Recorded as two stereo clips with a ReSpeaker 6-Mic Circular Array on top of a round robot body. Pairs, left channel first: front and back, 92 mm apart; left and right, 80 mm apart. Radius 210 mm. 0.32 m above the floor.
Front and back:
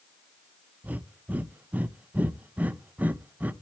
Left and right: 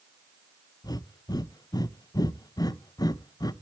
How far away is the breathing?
About 0.7 m.